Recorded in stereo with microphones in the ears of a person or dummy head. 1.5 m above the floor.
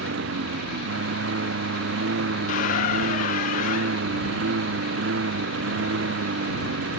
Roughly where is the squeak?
Left.